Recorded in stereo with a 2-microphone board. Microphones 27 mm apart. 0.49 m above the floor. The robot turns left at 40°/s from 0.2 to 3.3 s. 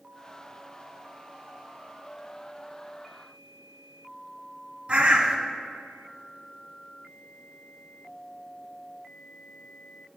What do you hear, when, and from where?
4.9 s a bird: 50° right (ahead or behind), 0.8 m